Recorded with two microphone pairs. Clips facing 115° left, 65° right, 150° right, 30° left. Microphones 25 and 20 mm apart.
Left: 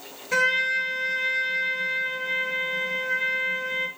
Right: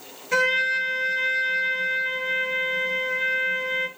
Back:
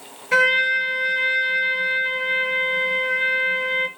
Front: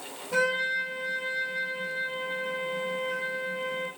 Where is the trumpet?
155° right, 3 m.